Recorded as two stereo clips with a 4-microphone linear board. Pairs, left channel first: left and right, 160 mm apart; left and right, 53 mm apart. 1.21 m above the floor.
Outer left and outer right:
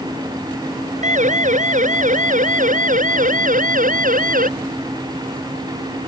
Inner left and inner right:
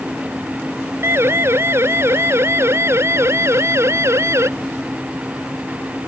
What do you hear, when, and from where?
1.0 s a siren: 50° right (ahead or behind); by 4.5 s 60° right (ahead or behind)